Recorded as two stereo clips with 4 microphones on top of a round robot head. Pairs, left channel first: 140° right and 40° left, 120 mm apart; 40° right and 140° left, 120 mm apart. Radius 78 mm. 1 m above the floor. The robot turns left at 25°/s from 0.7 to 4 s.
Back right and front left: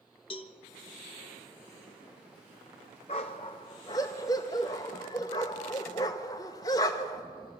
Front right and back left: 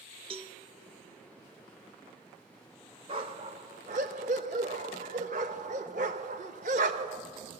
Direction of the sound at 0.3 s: Straight behind.